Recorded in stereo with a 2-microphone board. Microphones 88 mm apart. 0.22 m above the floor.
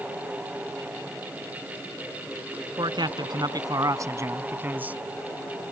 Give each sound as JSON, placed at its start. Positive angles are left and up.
{"t": 2.8, "sound": "a man speaking", "side_deg": -60}